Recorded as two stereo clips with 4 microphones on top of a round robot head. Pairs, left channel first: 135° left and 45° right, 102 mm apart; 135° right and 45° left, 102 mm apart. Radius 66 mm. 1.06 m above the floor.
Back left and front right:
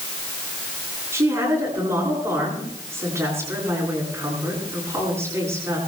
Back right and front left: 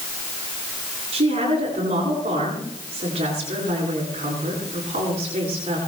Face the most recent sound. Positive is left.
turn(degrees=20)